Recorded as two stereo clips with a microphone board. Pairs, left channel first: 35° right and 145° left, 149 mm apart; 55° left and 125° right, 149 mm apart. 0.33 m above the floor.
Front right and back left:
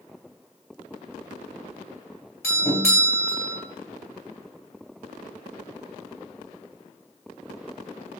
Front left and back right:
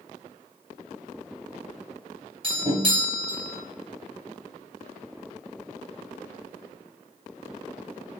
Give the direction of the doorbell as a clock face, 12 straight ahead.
3 o'clock.